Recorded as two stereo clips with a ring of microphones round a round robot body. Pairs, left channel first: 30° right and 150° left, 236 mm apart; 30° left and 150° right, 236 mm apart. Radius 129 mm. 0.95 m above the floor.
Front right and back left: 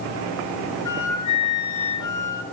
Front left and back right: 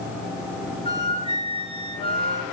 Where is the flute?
35° right, 3.5 m.